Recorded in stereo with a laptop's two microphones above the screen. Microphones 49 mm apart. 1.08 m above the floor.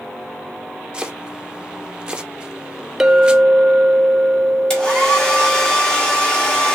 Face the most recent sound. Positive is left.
turn(degrees=15)  # may be behind; listen again after turning